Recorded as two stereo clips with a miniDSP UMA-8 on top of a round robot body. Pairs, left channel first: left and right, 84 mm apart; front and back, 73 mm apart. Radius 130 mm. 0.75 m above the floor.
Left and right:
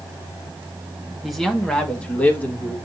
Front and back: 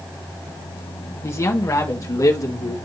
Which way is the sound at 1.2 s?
5° right.